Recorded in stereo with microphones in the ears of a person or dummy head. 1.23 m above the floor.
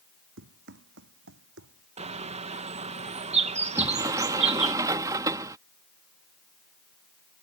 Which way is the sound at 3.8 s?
20° right (ahead or behind).